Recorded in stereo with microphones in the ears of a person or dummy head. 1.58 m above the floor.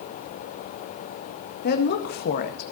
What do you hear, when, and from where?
1.6 s a woman speaking: 50° left (ahead or behind), 1.8 m